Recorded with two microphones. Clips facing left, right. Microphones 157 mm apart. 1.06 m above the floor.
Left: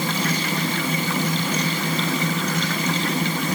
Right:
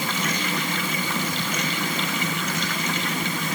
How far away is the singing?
No singing in this recording.